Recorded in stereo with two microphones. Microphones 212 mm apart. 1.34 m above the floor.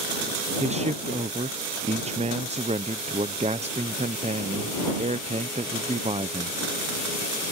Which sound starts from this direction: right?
A man speaking, at 0.6 s.